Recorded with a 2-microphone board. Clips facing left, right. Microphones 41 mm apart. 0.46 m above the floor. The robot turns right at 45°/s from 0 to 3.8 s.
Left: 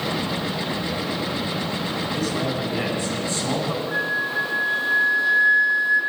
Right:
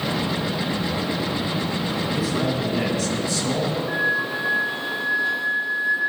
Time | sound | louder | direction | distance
2.1 | a man speaking | right 1 dB | 15° right | 4 m
3.9 | a flute | right 1 dB | 35° right (ahead or behind) | 5 m